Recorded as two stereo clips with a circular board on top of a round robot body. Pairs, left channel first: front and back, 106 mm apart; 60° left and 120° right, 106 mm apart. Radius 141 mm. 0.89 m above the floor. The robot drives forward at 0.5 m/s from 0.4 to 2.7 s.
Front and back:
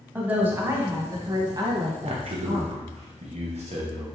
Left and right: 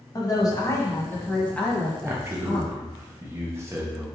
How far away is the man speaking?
About 0.8 m.